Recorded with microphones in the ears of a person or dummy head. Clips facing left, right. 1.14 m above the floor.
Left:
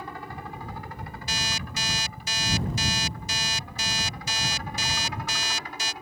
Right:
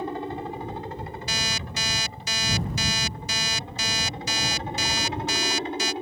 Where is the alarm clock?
70° right (ahead or behind).